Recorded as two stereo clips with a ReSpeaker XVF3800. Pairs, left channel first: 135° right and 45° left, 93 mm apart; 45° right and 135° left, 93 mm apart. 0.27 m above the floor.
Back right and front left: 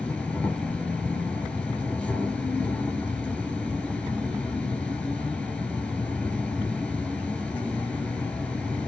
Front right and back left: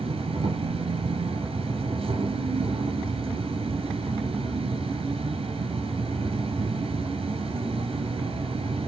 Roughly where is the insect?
Behind left.